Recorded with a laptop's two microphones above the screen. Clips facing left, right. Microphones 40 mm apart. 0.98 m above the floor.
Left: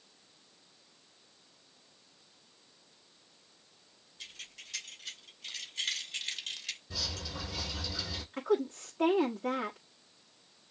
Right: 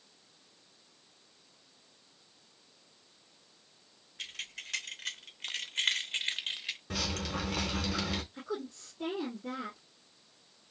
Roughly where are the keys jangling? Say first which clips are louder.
Right 6 dB; right.